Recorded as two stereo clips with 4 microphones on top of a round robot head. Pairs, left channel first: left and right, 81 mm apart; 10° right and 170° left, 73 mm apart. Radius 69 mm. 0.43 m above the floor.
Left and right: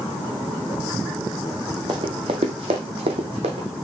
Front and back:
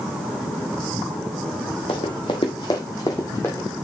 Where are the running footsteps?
40° right, 1.1 m; by 3.7 s 80° right, 1.4 m.